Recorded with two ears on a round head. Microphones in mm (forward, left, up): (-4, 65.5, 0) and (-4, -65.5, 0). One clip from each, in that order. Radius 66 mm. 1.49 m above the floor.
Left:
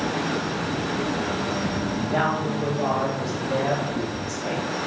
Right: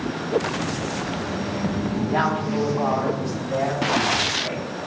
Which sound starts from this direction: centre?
A woman speaking, at 2.0 s.